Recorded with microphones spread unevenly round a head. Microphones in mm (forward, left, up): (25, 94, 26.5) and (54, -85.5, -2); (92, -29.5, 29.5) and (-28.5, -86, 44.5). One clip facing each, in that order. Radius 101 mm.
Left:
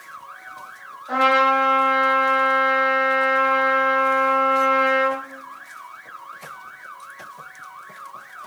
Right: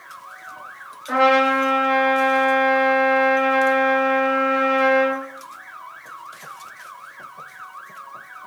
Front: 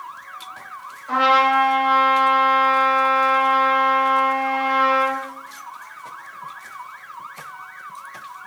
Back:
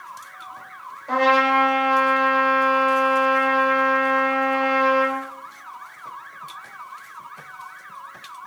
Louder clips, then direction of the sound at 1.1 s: Right 3 dB, front 1 dB; 115° right.